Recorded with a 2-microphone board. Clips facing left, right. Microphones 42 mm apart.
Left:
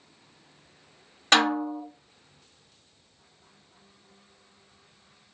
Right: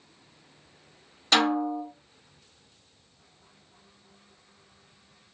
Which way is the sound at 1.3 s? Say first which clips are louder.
Left 1 dB; 45° left (ahead or behind).